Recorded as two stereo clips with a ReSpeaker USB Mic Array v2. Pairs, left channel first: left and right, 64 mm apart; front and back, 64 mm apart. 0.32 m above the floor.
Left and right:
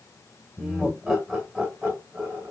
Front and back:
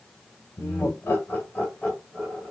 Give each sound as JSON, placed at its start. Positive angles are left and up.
{"t": 0.6, "sound": "laughter", "azimuth_deg": 5, "distance_m": 1.6}